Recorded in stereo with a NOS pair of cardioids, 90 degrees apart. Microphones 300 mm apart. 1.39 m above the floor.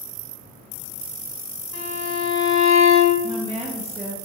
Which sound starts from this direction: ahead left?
A violin, at 1.7 s.